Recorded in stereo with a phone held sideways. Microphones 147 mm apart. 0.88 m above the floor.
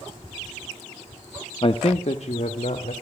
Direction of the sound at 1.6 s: 40° left (ahead or behind).